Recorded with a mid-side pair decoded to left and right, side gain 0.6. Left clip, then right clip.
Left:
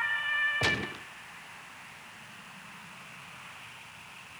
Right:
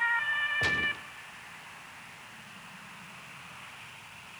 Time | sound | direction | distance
0.6 | a gunshot | 25° left | 0.7 m